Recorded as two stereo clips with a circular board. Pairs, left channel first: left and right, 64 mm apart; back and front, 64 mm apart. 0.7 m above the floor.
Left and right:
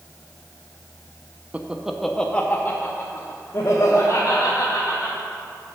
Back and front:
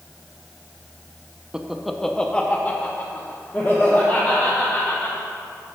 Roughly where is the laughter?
Ahead right.